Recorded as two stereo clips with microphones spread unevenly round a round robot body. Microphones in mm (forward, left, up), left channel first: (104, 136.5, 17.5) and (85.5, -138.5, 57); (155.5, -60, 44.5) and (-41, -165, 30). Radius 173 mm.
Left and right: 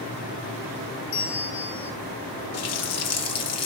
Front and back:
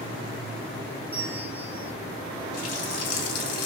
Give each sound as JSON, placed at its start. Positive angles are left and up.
{"t": 1.1, "sound": "a bell", "azimuth_deg": 125, "distance_m": 1.6}
{"t": 2.5, "sound": "a running tap", "azimuth_deg": 55, "distance_m": 1.2}